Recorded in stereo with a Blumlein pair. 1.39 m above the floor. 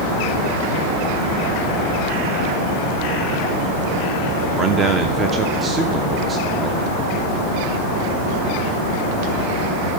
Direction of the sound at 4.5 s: 20° right.